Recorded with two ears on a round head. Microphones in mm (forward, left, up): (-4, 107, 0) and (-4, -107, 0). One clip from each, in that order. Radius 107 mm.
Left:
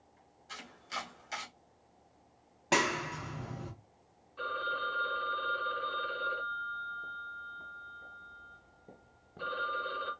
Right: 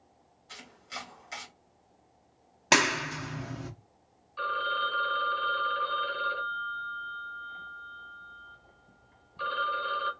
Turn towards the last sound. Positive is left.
turn(degrees=-40)  # may be behind; listen again after turning